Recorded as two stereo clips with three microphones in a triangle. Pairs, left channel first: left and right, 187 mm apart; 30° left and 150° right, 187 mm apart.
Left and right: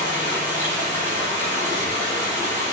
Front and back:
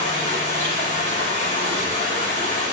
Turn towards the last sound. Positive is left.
turn(degrees=165)